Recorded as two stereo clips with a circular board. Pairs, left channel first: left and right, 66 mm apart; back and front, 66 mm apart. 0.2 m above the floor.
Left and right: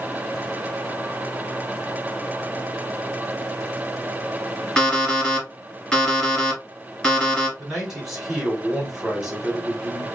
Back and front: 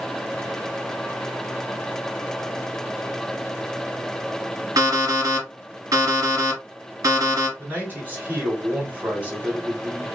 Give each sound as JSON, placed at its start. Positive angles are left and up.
{"t": 4.8, "sound": "an alarm clock", "azimuth_deg": 15, "distance_m": 1.7}
{"t": 7.6, "sound": "a man speaking", "azimuth_deg": -15, "distance_m": 1.2}